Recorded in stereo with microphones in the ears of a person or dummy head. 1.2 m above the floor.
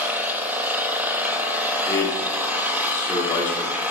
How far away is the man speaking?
About 2.5 m.